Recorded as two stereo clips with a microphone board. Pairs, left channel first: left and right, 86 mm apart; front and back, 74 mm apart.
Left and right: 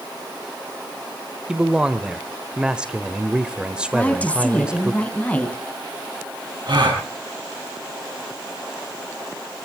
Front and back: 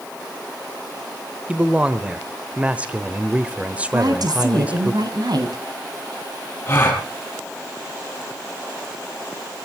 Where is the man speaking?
145° right, 1.1 m.